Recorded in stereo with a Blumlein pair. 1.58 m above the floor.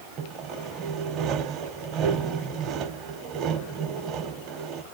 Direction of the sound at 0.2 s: 30° right.